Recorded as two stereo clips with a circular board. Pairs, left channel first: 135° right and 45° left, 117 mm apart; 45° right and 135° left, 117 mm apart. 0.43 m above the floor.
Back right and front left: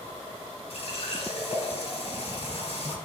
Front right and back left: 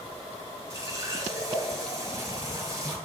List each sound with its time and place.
0.7 s a running tap: 165° right, 3 m